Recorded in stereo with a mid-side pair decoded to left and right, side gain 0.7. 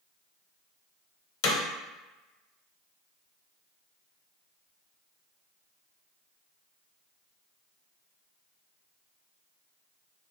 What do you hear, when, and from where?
1.4 s hammering: 65° left, 0.8 m